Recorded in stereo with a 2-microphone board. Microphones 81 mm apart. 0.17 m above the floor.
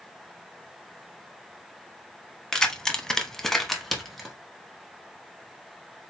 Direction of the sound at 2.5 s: 10° left (ahead or behind).